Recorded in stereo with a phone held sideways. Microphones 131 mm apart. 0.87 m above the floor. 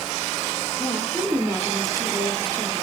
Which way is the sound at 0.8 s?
10° right (ahead or behind).